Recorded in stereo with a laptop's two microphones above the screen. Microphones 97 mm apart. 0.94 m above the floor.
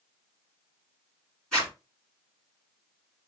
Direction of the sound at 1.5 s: 10° left (ahead or behind).